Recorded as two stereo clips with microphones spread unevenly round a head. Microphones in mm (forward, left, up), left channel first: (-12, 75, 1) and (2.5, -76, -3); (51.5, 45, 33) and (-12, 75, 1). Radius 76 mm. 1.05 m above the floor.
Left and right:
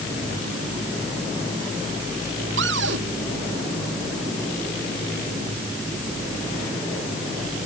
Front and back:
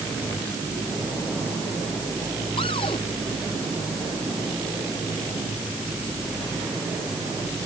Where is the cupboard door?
70° right.